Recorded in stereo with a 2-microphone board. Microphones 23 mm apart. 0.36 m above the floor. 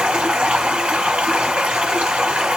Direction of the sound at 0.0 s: 55° right (ahead or behind).